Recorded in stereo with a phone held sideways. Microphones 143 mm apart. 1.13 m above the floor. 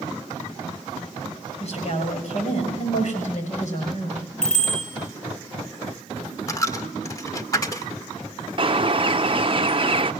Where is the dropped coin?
25° left (ahead or behind), 1.5 m.